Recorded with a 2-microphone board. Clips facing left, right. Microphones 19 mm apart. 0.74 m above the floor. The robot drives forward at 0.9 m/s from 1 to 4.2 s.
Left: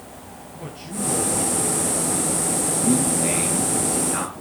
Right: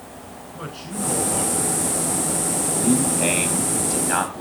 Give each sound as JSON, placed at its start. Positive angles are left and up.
{"t": 0.5, "sound": "a man speaking", "side_deg": -70, "distance_m": 9.5}
{"t": 2.7, "sound": "a man speaking", "side_deg": -60, "distance_m": 5.5}